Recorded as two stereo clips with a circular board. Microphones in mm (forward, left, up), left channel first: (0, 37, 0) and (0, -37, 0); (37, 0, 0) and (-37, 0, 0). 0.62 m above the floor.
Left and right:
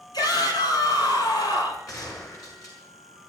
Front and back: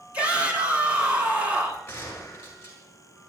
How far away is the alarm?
No alarm in this recording.